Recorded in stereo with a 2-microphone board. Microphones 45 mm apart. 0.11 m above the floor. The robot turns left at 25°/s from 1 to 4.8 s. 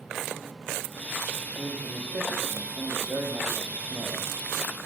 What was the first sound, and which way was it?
A man speaking, 60° right.